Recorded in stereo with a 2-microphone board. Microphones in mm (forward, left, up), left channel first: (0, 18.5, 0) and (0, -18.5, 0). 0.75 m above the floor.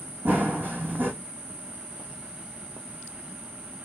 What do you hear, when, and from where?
0.2 s running footsteps: 55° right (ahead or behind), 1.8 m